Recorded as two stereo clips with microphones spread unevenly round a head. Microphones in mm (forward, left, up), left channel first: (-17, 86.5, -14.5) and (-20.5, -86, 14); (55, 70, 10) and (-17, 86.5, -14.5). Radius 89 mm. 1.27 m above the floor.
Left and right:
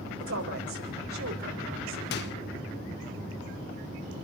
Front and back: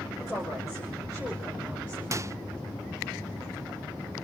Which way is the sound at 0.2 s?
85° right.